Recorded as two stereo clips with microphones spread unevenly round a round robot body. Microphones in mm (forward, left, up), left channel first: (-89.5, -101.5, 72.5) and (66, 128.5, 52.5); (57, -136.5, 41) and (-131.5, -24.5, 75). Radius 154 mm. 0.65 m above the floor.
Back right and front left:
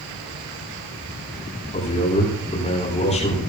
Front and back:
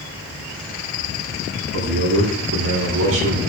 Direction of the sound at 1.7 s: 170° left.